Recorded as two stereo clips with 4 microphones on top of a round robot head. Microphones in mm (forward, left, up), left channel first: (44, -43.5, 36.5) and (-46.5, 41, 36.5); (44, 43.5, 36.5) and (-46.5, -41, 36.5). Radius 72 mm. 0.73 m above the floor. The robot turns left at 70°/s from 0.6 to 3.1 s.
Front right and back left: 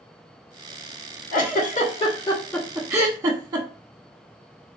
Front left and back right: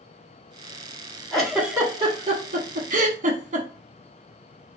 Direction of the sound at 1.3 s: 40° right.